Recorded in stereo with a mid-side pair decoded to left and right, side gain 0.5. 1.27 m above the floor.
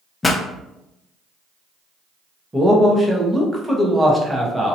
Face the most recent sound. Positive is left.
turn(degrees=-10)